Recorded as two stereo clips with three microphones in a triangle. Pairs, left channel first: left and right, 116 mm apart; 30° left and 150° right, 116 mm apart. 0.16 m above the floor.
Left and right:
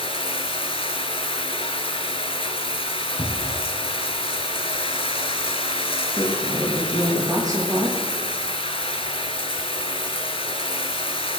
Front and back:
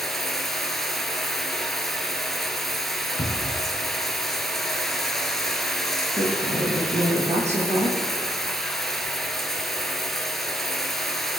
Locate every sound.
0.0 s running water: 115° left, 0.9 m
3.2 s a cupboard door: 40° left, 1.6 m
6.2 s a woman speaking: 150° right, 4.5 m